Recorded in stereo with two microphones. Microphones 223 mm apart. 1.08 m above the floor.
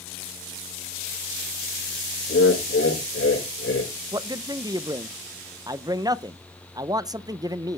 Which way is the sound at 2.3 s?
70° left (ahead or behind).